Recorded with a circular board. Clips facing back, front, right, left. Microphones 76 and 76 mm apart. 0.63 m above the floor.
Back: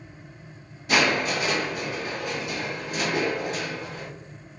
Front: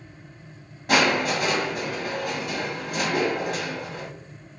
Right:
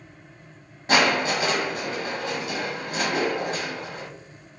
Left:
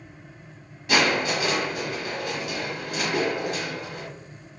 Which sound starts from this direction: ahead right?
Crushing, at 0.9 s.